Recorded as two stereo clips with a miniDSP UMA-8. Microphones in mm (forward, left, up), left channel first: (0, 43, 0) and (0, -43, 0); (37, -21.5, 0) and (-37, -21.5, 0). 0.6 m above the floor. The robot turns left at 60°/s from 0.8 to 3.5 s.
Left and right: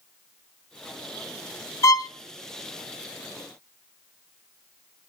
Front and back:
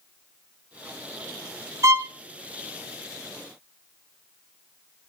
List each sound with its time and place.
1.8 s a violin: 140° left, 0.6 m; by 2.1 s 125° left, 0.6 m